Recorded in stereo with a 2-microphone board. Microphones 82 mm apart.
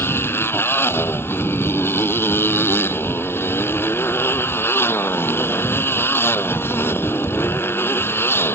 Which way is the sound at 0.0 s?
30° left (ahead or behind).